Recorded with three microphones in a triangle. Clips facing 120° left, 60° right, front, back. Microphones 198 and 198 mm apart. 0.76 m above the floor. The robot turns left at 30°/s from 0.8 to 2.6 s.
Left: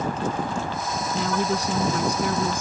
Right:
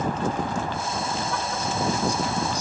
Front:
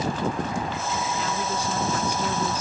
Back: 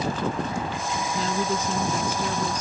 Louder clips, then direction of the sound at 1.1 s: Left 5 dB, back 2 dB; 125° left.